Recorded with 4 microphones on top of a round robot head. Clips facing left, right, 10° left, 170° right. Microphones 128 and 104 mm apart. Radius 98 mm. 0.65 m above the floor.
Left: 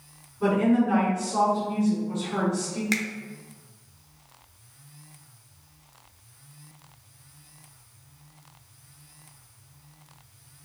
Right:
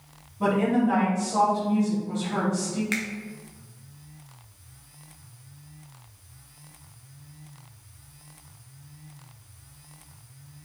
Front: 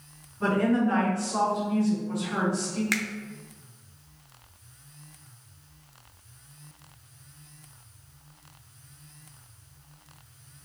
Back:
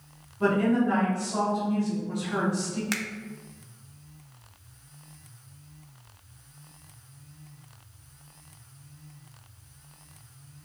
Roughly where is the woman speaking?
Right.